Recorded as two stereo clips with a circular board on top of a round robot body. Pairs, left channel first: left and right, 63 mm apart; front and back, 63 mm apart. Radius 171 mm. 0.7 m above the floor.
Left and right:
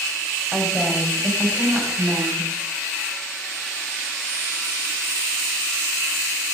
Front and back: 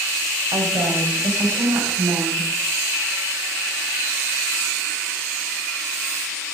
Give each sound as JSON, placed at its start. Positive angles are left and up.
{"t": 0.5, "sound": "a woman speaking", "azimuth_deg": -165, "distance_m": 4.5}